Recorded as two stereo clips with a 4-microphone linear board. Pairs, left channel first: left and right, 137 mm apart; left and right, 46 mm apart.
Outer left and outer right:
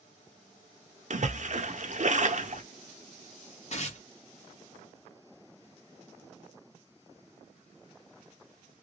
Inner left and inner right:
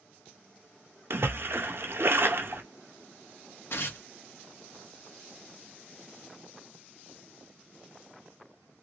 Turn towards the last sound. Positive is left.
turn(degrees=55)  # may be behind; listen again after turning